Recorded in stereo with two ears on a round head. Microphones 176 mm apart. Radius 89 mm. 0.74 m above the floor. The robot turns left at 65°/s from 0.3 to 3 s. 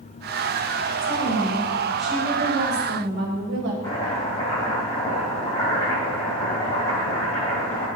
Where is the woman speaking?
65° left, 4 m; by 3.7 s 65° right, 4 m.